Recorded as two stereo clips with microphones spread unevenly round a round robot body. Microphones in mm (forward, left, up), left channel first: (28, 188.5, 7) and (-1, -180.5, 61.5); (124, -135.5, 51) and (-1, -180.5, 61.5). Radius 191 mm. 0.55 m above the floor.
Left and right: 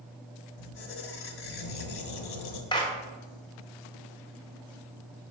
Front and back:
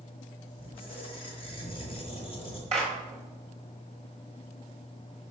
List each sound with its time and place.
0.6 s a squeak: 60° left, 1.1 m
2.7 s a clap: 160° left, 1.3 m